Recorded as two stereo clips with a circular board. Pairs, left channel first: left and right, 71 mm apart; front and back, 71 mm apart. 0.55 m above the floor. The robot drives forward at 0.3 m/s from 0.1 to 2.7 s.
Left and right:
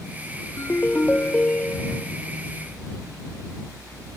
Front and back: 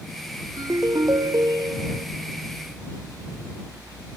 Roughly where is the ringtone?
Behind left.